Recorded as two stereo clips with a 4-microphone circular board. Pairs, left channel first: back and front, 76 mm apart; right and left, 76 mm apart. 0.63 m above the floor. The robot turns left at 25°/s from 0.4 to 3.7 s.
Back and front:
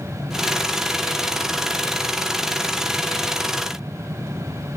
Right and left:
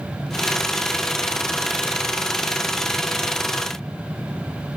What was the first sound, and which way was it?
Only background noise.